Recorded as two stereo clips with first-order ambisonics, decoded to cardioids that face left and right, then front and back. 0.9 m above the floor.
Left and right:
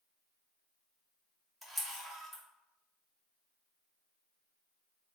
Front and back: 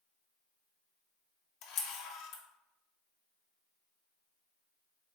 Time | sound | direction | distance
1.6 | a camera shutter | 10° right | 0.7 m